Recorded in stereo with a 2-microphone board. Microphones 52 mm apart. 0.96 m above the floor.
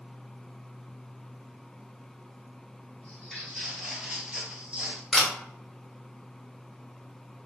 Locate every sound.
3.0 s footsteps: 5° left (ahead or behind), 1.3 m; by 5.0 s 30° right (ahead or behind), 1.1 m
5.1 s a camera shutter: 5° right (ahead or behind), 1.1 m